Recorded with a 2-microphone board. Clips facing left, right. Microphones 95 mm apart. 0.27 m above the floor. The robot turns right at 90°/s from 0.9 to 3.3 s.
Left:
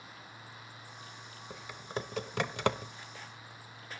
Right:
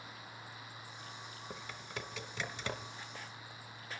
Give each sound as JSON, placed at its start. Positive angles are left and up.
{"t": 1.5, "sound": "typing on a keyboard", "side_deg": -10, "distance_m": 0.9}